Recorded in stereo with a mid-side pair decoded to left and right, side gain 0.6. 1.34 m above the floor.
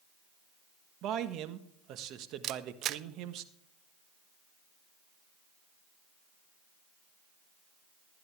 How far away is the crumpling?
I don't hear crumpling.